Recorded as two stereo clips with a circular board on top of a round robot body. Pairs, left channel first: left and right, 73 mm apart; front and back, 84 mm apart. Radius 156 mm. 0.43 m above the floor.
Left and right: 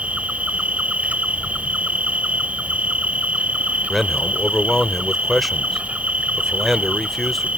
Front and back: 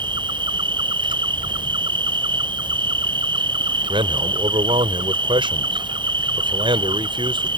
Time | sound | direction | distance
0.0 | an insect | 160° right | ?
3.9 | a man speaking | straight behind | ?